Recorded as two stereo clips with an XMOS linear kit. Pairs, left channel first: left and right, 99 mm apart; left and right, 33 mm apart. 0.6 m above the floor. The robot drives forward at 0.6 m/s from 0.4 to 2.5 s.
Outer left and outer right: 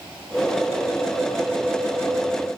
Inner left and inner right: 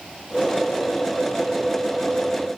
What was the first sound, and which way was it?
Only background noise.